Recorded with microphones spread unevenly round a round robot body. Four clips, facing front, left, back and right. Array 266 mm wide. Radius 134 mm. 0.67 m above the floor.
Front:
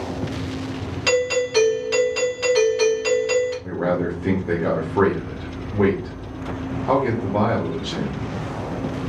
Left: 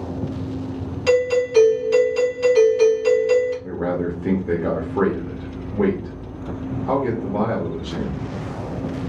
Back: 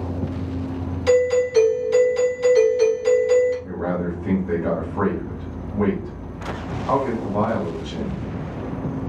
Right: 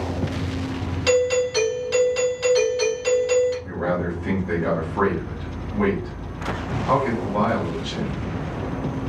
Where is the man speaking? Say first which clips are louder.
Left 1 dB, front 3 dB; 55° left, 0.8 m.